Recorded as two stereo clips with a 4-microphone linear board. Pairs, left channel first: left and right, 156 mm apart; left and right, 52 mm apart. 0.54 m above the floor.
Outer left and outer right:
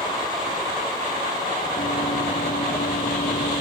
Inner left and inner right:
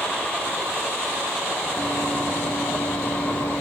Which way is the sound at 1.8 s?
70° left (ahead or behind).